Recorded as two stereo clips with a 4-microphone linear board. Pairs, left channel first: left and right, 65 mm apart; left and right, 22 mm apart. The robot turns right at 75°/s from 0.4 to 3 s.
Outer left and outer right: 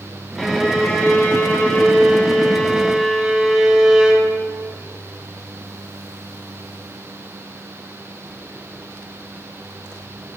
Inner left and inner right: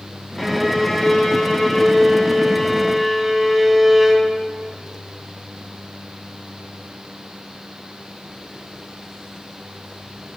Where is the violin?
Centre (ahead or behind), 0.7 m; by 4.3 s 10° right (ahead or behind), 0.7 m.